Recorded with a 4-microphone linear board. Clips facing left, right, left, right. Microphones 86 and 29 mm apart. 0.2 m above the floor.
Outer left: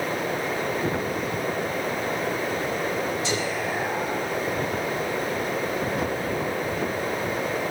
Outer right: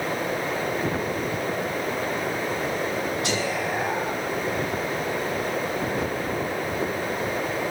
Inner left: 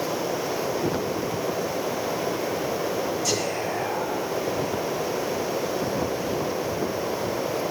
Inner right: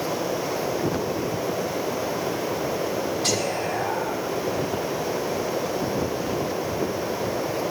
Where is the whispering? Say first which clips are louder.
Outer right 1 dB, inner right 1 dB; 70° right (ahead or behind), 9 m.